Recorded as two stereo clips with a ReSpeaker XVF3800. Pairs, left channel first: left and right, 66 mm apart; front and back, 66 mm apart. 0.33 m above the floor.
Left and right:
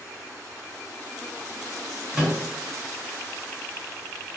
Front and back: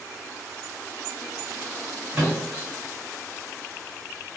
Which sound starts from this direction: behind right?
A microwave, at 2.1 s.